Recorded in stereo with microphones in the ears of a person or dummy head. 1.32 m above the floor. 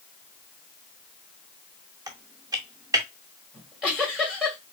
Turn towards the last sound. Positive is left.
turn(degrees=-5)  # may be behind; listen again after turning